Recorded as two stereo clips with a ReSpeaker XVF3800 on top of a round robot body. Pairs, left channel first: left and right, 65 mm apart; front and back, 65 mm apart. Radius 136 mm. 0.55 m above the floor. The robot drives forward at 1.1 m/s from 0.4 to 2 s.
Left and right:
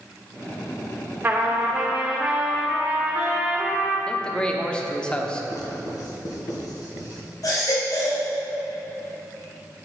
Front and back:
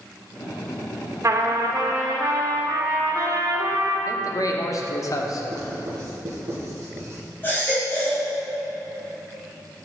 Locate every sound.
1.2 s a trumpet: 150° right, 1.5 m; by 4.0 s 160° right, 2 m
4.1 s a man speaking: 15° left, 1.4 m
5.5 s writing: 130° left, 2 m
7.4 s a baby crying: 60° left, 3.5 m